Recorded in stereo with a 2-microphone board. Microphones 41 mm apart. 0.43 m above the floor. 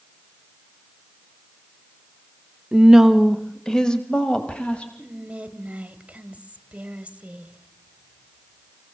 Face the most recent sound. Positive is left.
turn(degrees=-25)  # may be behind; listen again after turning